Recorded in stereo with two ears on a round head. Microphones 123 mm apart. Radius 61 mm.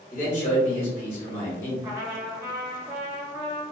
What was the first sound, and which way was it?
A man speaking, 25° left (ahead or behind).